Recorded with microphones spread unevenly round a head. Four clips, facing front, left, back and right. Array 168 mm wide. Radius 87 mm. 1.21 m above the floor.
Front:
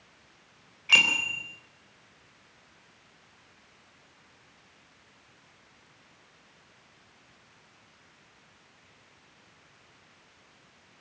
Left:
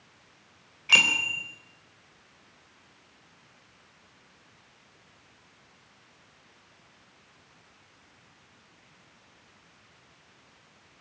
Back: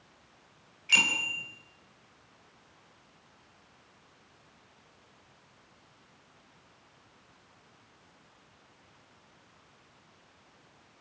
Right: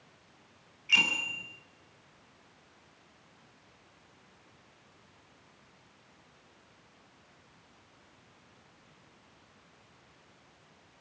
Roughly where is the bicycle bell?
Ahead left.